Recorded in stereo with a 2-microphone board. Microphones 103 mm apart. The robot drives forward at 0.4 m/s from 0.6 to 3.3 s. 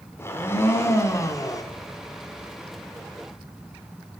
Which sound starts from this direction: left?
A blender, at 0.2 s.